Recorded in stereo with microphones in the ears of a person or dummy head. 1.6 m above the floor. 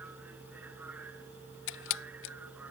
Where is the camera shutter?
65° left (ahead or behind).